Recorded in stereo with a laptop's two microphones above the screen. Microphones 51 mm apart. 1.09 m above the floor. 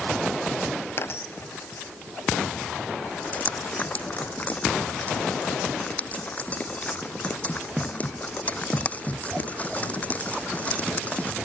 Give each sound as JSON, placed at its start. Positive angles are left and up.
{"t": 1.0, "sound": "a dropped coin", "side_deg": 50}
{"t": 3.2, "sound": "dripping", "side_deg": 30}